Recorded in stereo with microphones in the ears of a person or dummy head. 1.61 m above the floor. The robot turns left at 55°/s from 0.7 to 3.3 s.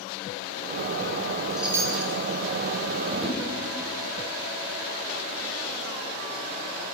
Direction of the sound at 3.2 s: 5° left (ahead or behind).